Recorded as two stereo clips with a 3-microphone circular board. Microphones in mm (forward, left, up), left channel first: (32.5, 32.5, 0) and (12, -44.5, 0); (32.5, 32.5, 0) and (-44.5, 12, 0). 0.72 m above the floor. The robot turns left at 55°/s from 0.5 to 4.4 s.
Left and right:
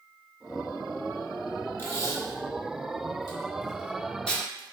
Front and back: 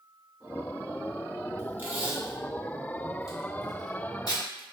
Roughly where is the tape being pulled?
Behind left.